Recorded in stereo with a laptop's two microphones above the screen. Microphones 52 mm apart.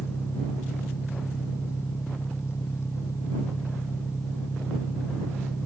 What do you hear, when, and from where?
0.0 s an engine running: 60° left (ahead or behind)